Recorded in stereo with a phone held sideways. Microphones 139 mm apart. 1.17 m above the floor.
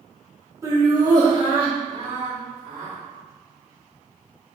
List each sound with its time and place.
0.6 s laughter: 20° right (ahead or behind), 1.3 m; by 3.0 s 50° right (ahead or behind), 2 m